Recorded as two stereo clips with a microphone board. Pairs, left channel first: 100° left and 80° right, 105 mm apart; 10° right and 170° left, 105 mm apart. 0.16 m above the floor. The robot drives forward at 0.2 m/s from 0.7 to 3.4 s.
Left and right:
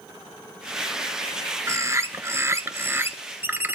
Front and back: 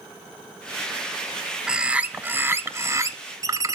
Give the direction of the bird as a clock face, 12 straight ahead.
4 o'clock.